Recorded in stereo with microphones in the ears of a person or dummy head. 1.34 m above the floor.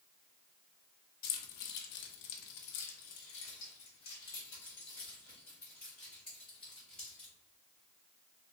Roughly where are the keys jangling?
Left.